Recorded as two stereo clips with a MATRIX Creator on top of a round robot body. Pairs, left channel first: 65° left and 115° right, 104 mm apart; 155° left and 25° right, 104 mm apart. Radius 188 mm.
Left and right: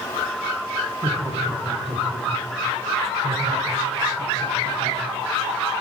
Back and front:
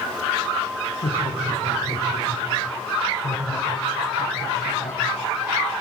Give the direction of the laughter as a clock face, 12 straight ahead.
6 o'clock.